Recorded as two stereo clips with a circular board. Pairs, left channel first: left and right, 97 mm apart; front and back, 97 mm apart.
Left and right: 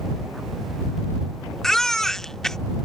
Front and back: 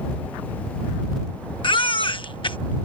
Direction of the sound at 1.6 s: 5° left.